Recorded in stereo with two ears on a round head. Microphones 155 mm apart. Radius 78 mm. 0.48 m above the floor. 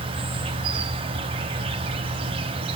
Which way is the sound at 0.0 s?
30° right (ahead or behind).